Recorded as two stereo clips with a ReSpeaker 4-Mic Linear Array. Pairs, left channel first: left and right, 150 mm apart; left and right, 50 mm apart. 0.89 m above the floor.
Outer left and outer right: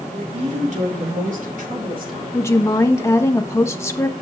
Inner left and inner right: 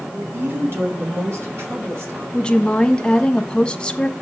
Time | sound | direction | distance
0.1 | a woman speaking | 45° right (ahead or behind) | 2.5 m
2.3 | a woman speaking | 20° left (ahead or behind) | 1.3 m